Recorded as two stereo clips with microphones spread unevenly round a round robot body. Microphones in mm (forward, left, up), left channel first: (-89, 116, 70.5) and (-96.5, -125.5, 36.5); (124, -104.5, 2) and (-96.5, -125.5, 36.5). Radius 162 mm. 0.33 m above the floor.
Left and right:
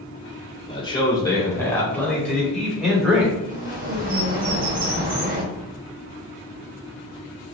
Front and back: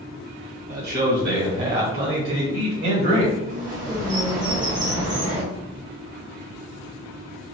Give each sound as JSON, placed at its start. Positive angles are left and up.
{"t": 0.7, "sound": "a man speaking", "azimuth_deg": 155, "distance_m": 1.7}
{"t": 3.5, "sound": "a bird", "azimuth_deg": -120, "distance_m": 1.8}